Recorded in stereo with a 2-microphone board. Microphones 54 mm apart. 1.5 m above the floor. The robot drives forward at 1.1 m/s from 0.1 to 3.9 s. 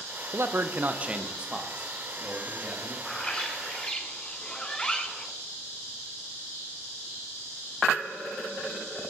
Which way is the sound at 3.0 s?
15° left (ahead or behind).